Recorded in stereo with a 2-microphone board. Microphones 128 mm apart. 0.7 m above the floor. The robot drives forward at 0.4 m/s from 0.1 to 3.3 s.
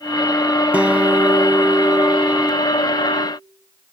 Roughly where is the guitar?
Centre.